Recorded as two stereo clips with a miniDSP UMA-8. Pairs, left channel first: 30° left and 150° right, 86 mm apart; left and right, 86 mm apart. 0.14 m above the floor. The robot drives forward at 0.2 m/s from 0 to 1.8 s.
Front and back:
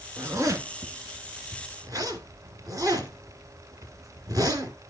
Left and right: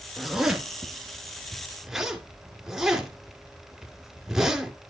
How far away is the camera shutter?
I don't hear a camera shutter.